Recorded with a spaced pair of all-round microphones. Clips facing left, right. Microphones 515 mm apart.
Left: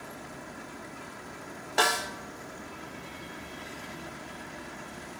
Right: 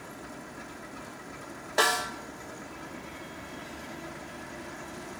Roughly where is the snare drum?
Centre.